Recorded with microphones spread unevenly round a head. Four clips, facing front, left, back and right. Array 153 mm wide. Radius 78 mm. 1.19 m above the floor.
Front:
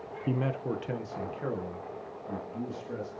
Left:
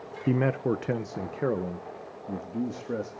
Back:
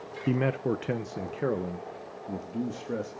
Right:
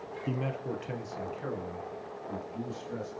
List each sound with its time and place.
0.3 s a man speaking: 110° left, 0.7 m; by 3.1 s 125° left, 2.5 m